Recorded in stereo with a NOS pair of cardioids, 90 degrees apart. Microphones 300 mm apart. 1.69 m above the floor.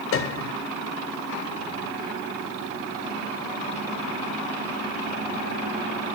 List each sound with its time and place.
0.1 s a piano: 45° left, 0.7 m